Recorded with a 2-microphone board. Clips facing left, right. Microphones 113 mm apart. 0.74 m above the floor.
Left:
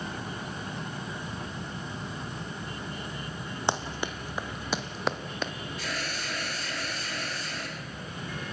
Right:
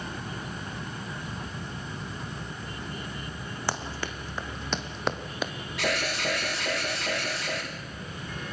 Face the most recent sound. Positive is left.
turn(degrees=-75)  # may be behind; listen again after turning